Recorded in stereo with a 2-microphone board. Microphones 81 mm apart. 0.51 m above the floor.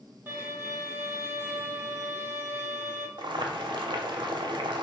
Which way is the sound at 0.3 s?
30° right (ahead or behind).